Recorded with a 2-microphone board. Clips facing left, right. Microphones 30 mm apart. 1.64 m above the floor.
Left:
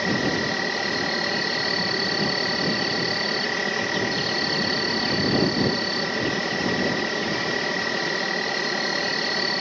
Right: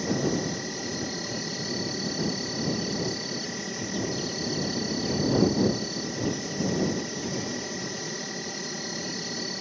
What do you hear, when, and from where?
0.0 s an insect: 45° left (ahead or behind)